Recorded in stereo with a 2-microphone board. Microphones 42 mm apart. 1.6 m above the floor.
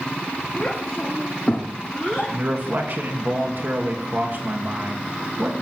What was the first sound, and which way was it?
A child speaking, 15° left (ahead or behind).